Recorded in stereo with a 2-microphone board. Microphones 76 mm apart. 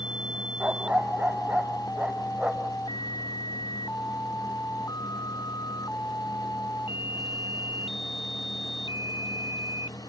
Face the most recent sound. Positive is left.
turn(degrees=-15)  # may be behind; listen again after turning